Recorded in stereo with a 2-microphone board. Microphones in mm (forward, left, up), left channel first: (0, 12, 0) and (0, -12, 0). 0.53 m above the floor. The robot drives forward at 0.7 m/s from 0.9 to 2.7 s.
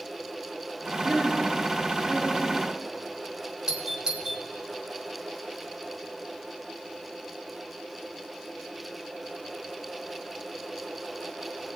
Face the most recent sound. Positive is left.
turn(degrees=-25)  # may be behind; listen again after turning